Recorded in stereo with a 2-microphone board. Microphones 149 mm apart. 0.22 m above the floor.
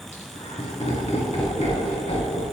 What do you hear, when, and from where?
0.1 s laughter: 50° left (ahead or behind), 2 m